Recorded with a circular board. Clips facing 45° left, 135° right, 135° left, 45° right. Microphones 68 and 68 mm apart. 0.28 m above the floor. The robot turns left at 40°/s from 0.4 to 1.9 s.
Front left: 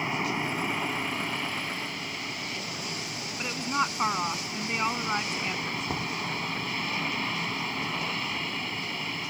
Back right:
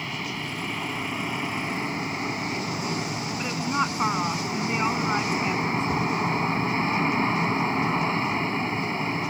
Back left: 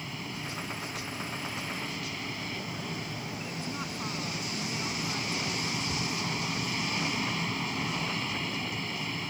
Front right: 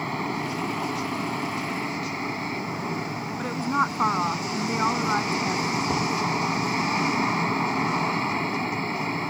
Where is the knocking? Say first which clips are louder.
Back right 7 dB, front right 9 dB; 45° right.